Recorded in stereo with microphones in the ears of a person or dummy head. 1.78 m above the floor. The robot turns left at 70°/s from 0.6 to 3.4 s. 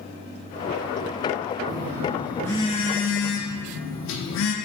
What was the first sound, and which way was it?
A phone buzzing, 135° right.